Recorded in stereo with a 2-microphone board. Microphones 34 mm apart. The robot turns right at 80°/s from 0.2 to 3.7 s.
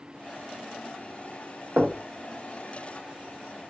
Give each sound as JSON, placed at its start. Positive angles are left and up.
{"t": 1.8, "sound": "knocking", "side_deg": -50, "distance_m": 0.5}